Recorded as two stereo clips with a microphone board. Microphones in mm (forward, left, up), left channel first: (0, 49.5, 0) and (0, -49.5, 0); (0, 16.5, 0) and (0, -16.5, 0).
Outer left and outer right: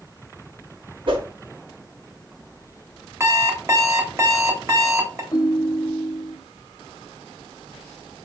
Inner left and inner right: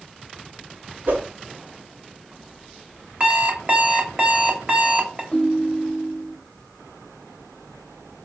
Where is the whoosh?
55° right (ahead or behind), 0.9 m.